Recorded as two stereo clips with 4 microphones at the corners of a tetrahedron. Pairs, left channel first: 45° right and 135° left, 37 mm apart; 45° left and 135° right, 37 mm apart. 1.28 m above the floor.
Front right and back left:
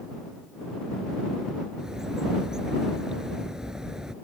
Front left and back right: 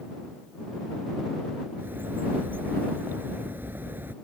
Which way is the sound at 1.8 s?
155° right.